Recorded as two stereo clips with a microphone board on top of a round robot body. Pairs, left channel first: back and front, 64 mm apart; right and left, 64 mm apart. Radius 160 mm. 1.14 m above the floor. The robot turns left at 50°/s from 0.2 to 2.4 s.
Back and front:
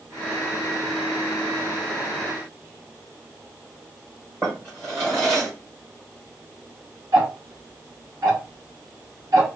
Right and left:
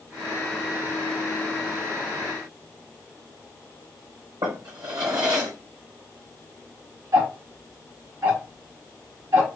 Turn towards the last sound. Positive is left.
turn(degrees=40)